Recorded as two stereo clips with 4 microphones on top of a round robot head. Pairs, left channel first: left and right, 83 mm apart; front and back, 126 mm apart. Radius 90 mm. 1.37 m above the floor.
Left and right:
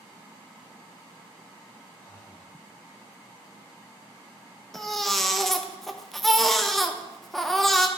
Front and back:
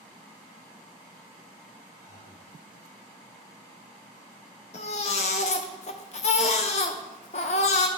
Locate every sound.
2.0 s breathing: 40° left, 2.5 m
4.7 s a baby crying: 5° left, 0.5 m